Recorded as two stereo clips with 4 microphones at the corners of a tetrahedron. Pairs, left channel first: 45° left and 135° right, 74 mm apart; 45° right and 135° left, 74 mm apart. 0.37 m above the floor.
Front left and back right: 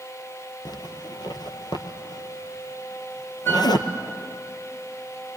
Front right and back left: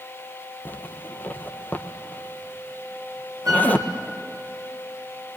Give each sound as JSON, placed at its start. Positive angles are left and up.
{"t": 0.7, "sound": "a zipper", "azimuth_deg": 20, "distance_m": 1.4}
{"t": 3.5, "sound": "a flute", "azimuth_deg": 100, "distance_m": 3.5}